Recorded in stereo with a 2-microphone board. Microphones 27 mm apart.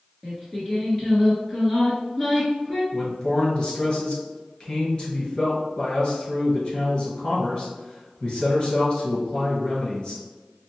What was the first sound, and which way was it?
Singing, 5° left (ahead or behind).